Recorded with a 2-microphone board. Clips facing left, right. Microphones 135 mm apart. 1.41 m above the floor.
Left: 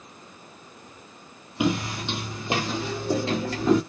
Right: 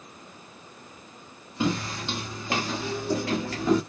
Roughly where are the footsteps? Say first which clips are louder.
Left 2 dB; centre.